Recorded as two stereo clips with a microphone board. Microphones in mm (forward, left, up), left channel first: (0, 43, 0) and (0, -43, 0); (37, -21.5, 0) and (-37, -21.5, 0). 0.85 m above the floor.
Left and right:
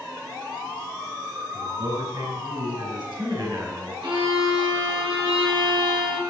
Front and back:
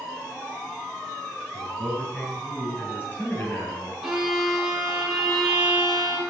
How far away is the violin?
About 3 m.